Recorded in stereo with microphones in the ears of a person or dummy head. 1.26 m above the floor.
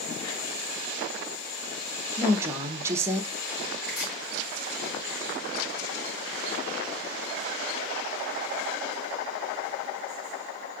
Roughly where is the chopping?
Left.